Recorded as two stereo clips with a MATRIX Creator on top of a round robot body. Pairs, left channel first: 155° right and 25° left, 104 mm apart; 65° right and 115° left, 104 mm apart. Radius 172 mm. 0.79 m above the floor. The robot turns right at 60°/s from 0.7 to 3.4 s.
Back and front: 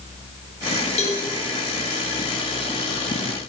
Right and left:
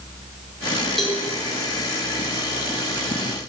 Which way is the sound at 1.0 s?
155° right.